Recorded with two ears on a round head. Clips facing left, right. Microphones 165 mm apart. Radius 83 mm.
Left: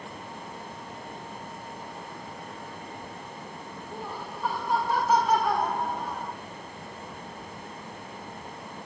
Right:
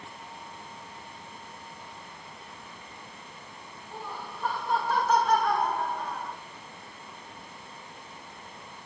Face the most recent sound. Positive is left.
turn(degrees=10)  # may be behind; listen again after turning